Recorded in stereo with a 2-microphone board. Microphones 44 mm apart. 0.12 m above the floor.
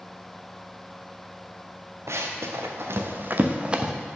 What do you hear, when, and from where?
2.1 s running footsteps: 85° right, 1.9 m; by 3.9 s 15° right (ahead or behind), 1.2 m